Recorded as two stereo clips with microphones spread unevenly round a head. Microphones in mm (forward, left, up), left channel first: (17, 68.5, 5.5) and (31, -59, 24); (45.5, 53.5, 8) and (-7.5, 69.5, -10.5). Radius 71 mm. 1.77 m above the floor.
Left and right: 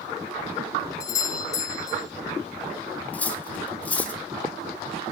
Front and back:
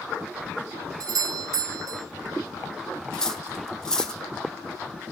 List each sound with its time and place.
1.0 s a doorbell: 165° left, 0.9 m
3.1 s cutlery clinking: 15° left, 1.0 m